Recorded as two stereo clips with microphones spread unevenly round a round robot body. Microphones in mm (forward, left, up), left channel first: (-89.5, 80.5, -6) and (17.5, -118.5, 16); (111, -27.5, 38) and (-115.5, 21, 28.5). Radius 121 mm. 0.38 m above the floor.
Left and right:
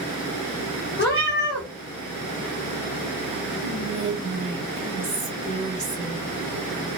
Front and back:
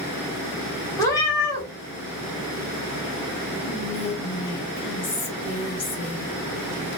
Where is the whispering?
45° left, 1.3 m.